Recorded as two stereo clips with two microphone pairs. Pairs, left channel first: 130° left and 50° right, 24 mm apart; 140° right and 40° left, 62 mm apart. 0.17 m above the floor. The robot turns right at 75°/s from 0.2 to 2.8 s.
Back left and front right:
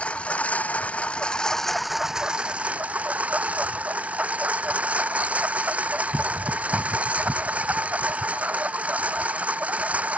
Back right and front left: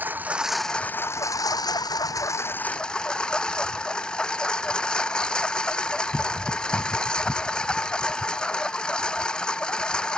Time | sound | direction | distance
0.0 | a lawn mower | 100° left | ?